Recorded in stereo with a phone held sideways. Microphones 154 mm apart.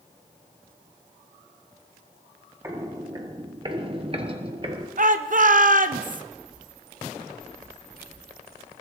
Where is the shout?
60° right (ahead or behind), 0.6 m.